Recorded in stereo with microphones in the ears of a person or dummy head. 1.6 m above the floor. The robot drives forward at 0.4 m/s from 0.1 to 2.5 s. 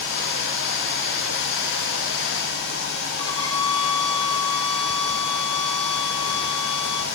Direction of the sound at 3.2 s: 25° left (ahead or behind).